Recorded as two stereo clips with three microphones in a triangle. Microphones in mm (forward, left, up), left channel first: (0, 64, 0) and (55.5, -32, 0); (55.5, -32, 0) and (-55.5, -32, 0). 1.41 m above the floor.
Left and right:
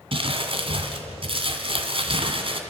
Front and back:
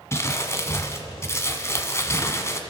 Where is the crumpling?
60° right, 2 m.